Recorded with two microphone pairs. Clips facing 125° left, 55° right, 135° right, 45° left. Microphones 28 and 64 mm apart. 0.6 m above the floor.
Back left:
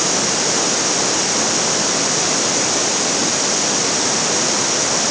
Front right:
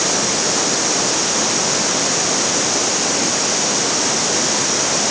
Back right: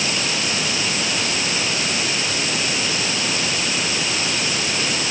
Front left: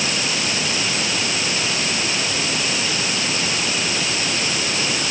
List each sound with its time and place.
Only background noise.